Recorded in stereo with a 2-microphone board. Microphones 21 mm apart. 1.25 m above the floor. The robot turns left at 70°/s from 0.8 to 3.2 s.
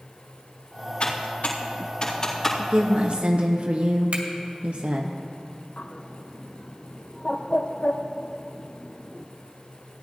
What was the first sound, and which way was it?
Typing on a keyboard, 60° left (ahead or behind).